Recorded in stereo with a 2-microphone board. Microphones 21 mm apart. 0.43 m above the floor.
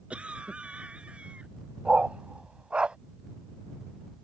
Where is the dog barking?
75° right (ahead or behind).